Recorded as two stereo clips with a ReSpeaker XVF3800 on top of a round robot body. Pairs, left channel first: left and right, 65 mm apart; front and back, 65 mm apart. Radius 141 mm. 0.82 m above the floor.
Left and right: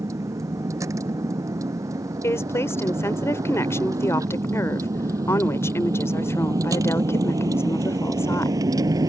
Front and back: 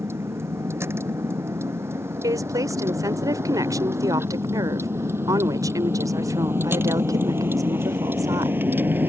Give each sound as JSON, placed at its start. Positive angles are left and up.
{"t": 0.0, "sound": "a vehicle", "azimuth_deg": -130}
{"t": 2.2, "sound": "a woman speaking", "azimuth_deg": 145}